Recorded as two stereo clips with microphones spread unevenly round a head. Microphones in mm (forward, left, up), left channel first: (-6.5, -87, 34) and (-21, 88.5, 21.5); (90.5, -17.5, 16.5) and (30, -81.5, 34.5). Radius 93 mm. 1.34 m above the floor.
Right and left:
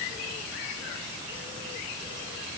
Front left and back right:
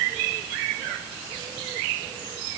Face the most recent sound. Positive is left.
No sound to turn to.